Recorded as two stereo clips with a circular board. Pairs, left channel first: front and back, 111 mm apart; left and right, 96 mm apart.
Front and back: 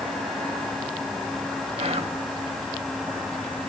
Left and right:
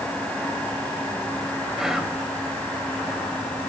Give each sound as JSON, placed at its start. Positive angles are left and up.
{"t": 1.8, "sound": "whispering", "azimuth_deg": -175, "distance_m": 2.5}